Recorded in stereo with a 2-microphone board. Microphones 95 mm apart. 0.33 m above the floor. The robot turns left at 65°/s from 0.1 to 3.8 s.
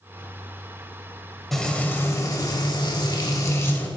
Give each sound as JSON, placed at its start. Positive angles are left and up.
{"t": 1.5, "sound": "frying", "azimuth_deg": 180, "distance_m": 0.8}